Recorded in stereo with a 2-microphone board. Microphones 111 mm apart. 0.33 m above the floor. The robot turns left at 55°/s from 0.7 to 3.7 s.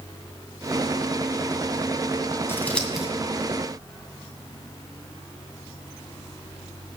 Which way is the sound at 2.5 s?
25° left (ahead or behind).